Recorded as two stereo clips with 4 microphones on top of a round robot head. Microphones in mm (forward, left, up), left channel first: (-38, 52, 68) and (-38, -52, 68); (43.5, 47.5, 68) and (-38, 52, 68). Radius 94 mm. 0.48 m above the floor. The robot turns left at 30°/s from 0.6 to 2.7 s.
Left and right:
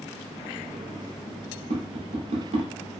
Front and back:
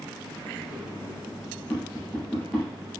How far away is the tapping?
About 0.9 m.